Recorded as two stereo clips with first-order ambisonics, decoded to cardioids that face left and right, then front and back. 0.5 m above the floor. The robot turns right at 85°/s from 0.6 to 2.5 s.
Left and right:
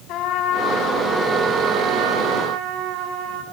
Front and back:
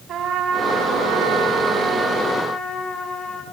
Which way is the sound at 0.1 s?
125° left.